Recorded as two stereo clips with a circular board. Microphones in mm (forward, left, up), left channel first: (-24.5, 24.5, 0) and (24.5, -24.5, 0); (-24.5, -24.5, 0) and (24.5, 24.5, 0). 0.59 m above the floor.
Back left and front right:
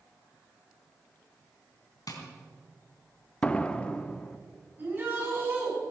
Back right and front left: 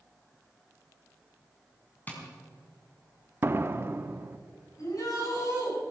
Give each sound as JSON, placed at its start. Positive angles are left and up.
{"t": 2.1, "sound": "tapping", "azimuth_deg": 160, "distance_m": 3.5}
{"t": 3.4, "sound": "a door slam", "azimuth_deg": 75, "distance_m": 0.7}
{"t": 4.8, "sound": "a shout", "azimuth_deg": -105, "distance_m": 7.0}